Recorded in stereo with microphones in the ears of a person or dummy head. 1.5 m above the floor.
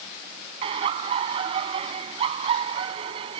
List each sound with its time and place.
0.6 s laughter: 35° right (ahead or behind)